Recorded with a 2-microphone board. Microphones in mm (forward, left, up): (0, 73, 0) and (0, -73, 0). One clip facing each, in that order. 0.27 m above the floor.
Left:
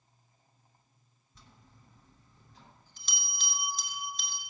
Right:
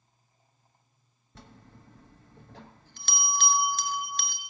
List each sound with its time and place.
1.4 s a bell: 80° right, 0.9 m